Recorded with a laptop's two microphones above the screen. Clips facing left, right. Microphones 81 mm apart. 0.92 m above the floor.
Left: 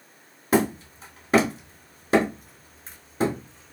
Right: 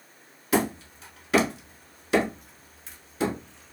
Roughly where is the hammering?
Left.